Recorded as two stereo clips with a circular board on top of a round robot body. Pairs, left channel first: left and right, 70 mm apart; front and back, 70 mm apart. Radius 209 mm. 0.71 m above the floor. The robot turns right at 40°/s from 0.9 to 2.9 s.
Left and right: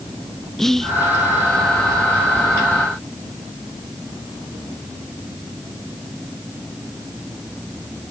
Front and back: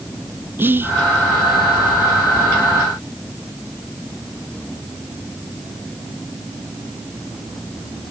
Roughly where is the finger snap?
No finger snap in this recording.